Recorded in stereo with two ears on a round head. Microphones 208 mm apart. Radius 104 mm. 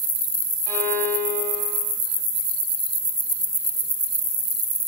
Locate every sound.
0.7 s a violin: 10° right (ahead or behind), 2 m